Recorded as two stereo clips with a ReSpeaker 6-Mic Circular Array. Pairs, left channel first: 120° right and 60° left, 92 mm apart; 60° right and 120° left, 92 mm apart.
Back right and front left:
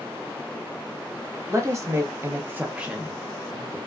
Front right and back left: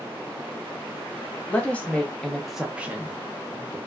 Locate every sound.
1.5 s a woman speaking: 10° left, 1.0 m; by 3.8 s 165° left, 0.9 m